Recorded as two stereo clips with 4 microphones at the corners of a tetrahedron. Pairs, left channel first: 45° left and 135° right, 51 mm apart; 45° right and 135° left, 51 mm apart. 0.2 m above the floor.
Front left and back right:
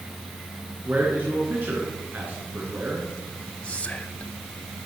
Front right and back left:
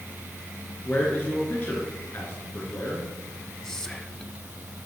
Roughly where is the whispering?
Ahead.